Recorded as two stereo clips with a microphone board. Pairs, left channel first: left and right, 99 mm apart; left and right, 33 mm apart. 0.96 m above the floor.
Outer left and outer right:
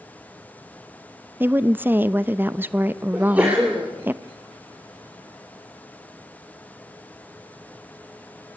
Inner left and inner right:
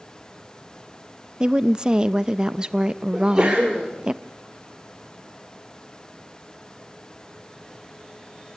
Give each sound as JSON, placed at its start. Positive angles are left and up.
{"t": 1.4, "sound": "a woman speaking", "side_deg": -20, "distance_m": 0.7}
{"t": 3.1, "sound": "a sneeze", "side_deg": -15, "distance_m": 3.5}